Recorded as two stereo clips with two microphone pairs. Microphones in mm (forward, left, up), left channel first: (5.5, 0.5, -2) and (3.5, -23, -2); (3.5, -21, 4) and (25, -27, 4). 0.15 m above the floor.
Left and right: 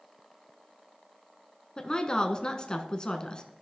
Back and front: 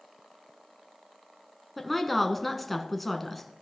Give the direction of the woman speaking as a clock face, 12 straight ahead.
9 o'clock.